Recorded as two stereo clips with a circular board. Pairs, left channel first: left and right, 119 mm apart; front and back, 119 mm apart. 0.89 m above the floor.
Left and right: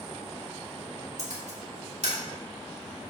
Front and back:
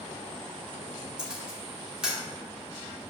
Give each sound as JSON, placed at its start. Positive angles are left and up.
{"t": 1.2, "sound": "a camera shutter", "azimuth_deg": -95, "distance_m": 2.5}